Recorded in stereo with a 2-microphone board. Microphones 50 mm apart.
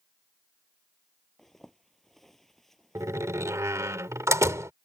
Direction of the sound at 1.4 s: 5° left (ahead or behind).